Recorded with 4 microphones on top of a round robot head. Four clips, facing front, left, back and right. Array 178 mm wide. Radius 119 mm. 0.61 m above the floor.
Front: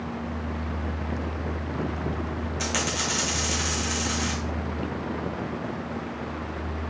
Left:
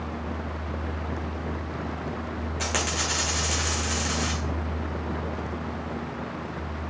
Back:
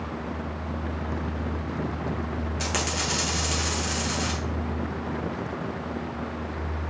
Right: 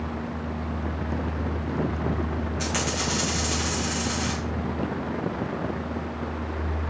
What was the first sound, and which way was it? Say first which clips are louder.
A dropped coin: left 1 dB, front 1 dB; 100° left.